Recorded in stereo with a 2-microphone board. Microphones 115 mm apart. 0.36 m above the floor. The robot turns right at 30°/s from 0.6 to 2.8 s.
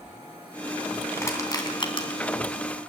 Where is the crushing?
20° left (ahead or behind), 3 m; by 2.1 s 45° left (ahead or behind), 3 m.